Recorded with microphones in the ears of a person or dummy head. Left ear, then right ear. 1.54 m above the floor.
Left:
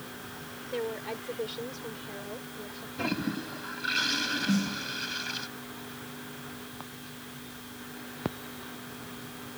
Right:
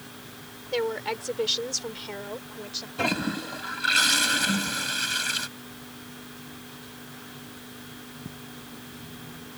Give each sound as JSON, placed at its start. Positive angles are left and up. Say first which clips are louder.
{"t": 0.7, "sound": "a woman speaking", "louder": "right 7 dB", "side_deg": -55}
{"t": 3.0, "sound": "a toilet flushing", "louder": "right 5 dB", "side_deg": -25}
{"t": 4.5, "sound": "a snare drum", "louder": "right 4 dB", "side_deg": 65}